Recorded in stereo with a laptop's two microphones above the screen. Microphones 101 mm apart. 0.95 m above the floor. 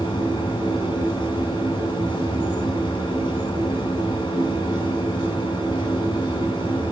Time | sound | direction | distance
0.0 | a machine running | 45° left (ahead or behind) | 7 m